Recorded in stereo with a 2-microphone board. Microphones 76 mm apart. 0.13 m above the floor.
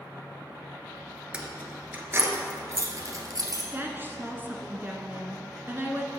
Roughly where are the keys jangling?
Centre.